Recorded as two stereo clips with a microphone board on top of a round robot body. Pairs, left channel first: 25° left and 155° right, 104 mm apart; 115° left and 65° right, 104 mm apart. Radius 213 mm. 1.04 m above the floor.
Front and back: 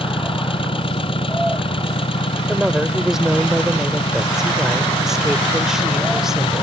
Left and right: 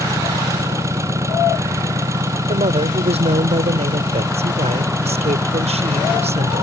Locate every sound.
0.0 s an engine running: 5° right
2.5 s a woman speaking: 70° right